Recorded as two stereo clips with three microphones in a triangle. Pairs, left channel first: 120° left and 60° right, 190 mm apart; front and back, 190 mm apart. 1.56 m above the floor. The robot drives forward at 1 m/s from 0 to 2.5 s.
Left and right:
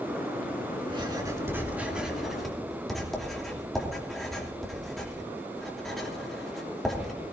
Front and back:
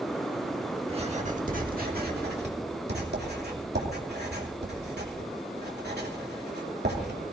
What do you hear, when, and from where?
0.9 s writing: 120° right, 1.7 m; by 7.2 s 150° right, 3 m